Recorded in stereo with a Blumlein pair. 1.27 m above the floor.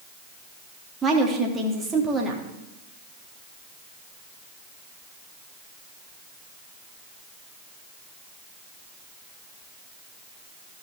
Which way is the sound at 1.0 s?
20° right.